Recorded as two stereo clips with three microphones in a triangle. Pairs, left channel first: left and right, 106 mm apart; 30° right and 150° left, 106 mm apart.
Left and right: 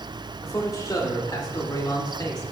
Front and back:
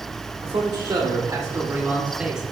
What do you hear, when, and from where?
0.4 s a man speaking: 135° left, 1.9 m; by 2.4 s 70° left, 1.4 m